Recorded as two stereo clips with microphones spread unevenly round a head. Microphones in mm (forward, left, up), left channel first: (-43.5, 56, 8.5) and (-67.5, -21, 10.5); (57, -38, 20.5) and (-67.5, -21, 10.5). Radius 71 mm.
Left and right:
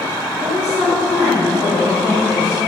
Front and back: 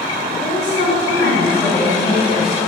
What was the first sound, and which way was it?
A woman speaking, 15° right.